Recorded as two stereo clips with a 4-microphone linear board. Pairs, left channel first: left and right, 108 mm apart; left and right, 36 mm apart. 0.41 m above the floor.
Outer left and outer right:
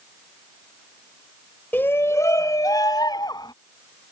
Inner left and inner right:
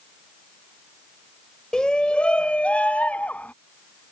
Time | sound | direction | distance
1.7 | a shout | 20° left (ahead or behind) | ?